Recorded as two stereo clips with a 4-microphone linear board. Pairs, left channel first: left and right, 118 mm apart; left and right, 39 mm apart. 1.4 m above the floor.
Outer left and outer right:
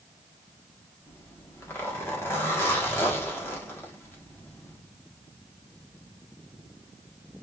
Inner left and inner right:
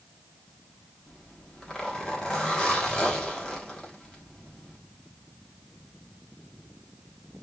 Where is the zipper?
20° left (ahead or behind), 1.4 m.